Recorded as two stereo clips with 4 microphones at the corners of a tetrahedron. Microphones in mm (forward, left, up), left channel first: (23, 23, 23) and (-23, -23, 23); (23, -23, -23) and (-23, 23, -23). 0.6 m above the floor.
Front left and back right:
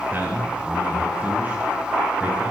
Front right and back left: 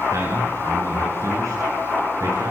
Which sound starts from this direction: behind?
A man speaking, at 0.1 s.